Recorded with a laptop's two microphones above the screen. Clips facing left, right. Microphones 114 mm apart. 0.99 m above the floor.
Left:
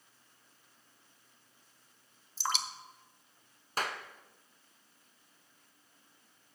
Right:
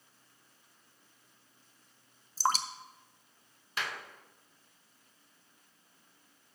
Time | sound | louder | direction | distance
2.4 | dripping | right 6 dB | 40° right (ahead or behind) | 0.6 m
3.8 | a clap | left 3 dB | 40° left (ahead or behind) | 0.6 m